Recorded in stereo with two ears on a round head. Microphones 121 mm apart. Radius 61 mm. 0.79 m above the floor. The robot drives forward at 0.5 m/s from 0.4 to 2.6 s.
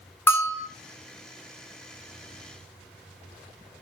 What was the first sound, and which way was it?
A bell, 15° left (ahead or behind).